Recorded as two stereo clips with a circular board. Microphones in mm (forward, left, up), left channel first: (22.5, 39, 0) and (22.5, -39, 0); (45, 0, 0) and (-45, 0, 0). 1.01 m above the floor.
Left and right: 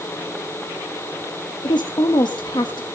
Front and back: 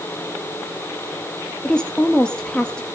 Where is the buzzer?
I don't hear a buzzer.